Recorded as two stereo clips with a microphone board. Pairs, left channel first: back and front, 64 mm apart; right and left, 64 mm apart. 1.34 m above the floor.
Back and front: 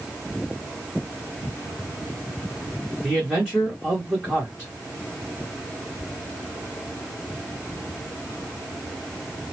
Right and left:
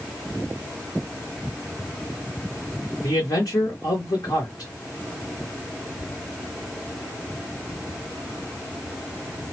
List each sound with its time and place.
3.0 s a man speaking: 80° right, 1.5 m